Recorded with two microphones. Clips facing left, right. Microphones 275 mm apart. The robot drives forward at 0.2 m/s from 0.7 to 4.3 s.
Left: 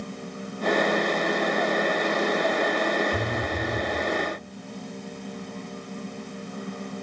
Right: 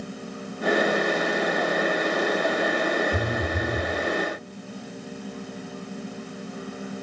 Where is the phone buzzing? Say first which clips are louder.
Right 1 dB; 20° right (ahead or behind), 0.6 m; by 3.9 s 15° right (ahead or behind), 0.8 m.